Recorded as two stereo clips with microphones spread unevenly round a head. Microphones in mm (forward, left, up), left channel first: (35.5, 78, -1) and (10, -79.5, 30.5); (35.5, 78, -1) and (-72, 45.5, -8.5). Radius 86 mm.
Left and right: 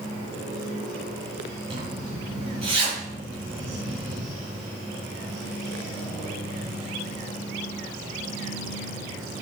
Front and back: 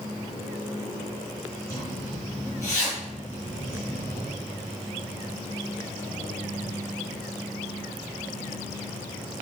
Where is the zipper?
50° right, 4 m.